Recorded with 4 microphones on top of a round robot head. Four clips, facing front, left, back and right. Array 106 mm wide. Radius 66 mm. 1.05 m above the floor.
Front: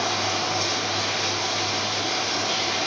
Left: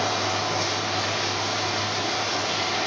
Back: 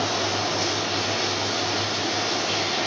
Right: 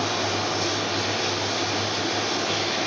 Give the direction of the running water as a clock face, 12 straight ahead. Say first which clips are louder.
Even, back 1 dB; 10 o'clock.